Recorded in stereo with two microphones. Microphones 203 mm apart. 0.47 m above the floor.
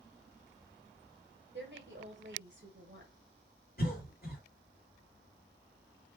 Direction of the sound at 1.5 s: 60° right (ahead or behind).